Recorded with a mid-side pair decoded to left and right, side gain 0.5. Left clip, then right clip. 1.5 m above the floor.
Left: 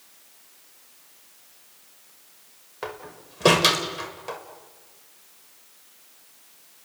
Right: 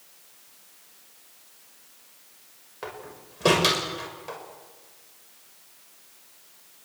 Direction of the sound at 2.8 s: 25° left.